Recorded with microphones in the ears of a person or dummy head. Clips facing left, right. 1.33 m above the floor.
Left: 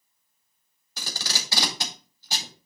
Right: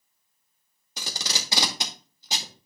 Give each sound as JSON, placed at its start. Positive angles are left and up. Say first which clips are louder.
{"t": 1.0, "sound": "tape being pulled", "louder": "right 1 dB", "side_deg": -15, "distance_m": 2.5}